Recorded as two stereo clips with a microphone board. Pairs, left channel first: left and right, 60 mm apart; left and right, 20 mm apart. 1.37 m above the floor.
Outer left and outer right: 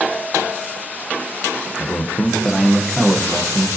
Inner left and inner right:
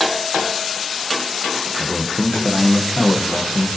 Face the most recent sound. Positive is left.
turn(degrees=-25)  # may be behind; listen again after turning